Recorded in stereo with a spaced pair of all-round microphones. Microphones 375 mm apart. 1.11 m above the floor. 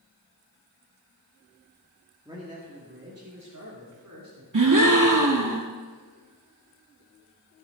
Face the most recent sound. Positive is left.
turn(degrees=-55)  # may be behind; listen again after turning